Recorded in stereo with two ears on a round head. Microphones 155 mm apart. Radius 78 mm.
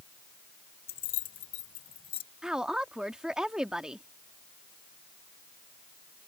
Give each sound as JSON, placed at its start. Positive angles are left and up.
{"t": 0.9, "sound": "keys jangling", "side_deg": 55}
{"t": 2.4, "sound": "a woman speaking", "side_deg": -5}